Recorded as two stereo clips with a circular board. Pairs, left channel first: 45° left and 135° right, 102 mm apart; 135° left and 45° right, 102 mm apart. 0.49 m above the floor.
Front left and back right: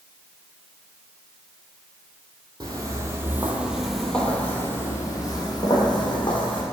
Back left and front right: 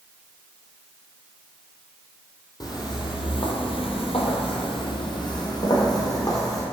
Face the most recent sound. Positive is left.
turn(degrees=80)